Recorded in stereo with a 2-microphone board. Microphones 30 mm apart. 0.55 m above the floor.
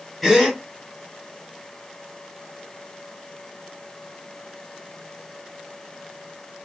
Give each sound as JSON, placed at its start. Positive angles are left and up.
{"t": 0.2, "sound": "a gasp", "side_deg": 5, "distance_m": 2.0}